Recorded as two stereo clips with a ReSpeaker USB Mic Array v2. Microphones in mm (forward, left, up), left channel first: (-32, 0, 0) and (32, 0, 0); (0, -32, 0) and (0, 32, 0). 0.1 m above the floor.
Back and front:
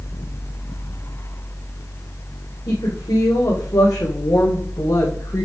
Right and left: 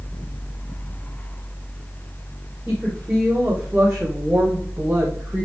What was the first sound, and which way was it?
A woman speaking, 165° left.